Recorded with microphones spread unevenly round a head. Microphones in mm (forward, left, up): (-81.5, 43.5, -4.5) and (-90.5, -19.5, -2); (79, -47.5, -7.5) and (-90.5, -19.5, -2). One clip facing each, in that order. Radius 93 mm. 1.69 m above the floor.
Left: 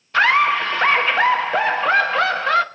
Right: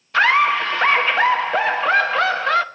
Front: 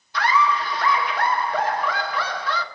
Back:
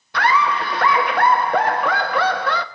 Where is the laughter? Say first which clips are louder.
Even, back 2 dB; 175° left, 0.9 m.